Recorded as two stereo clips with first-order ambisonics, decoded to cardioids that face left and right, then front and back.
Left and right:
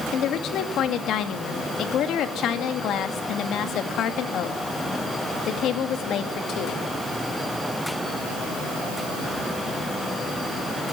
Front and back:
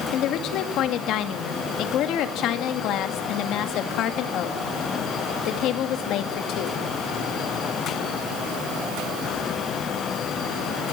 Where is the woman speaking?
40° left, 2 m.